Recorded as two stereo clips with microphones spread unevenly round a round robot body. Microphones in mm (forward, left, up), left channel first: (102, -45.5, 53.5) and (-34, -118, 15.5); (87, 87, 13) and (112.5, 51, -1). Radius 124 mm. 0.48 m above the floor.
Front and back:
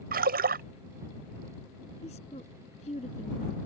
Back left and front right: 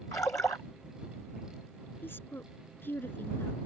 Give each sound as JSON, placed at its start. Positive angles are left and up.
{"t": 0.1, "sound": "a splash", "azimuth_deg": -170}
{"t": 2.0, "sound": "a woman speaking", "azimuth_deg": 90}